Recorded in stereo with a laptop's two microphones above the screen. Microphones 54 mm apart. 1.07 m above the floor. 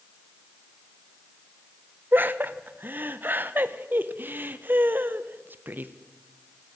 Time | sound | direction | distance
2.1 | laughter | 40° right (ahead or behind) | 0.7 m